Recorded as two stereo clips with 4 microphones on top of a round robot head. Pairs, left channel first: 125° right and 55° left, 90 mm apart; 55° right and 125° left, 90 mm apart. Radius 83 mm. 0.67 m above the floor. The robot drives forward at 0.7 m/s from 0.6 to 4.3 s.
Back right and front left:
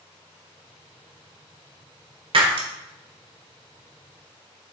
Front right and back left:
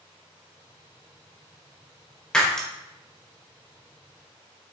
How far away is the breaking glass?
About 1.7 m.